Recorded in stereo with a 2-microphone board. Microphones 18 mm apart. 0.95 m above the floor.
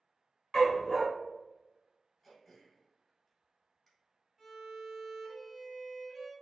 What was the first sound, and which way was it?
A dog barking, 30° left (ahead or behind).